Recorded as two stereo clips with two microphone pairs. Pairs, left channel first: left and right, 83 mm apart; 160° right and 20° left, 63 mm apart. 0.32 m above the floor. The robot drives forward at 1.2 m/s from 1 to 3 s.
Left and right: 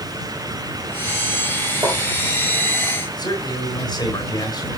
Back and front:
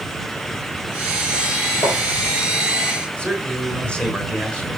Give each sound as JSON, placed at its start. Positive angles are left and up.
{"t": 1.8, "sound": "tapping", "azimuth_deg": -145, "distance_m": 4.0}
{"t": 3.2, "sound": "a man speaking", "azimuth_deg": 120, "distance_m": 4.0}